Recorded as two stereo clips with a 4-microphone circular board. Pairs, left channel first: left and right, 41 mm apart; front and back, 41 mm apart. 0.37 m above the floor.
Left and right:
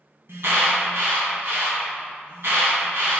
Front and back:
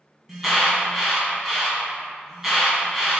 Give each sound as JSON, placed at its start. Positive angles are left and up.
{"t": 0.3, "sound": "an alarm", "azimuth_deg": -95, "distance_m": 2.0}